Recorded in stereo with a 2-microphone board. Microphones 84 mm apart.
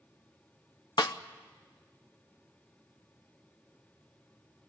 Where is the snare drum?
60° left (ahead or behind), 0.7 m.